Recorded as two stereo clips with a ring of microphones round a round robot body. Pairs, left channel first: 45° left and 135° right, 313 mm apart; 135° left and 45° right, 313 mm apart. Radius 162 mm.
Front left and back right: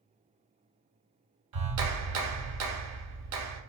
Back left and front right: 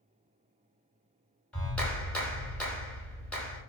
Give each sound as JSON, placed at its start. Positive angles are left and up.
{"t": 1.5, "sound": "a clap", "azimuth_deg": -140, "distance_m": 0.9}